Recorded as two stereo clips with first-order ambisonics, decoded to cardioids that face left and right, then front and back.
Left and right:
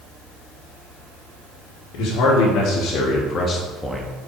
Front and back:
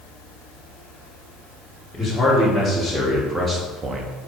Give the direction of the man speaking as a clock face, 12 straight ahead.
9 o'clock.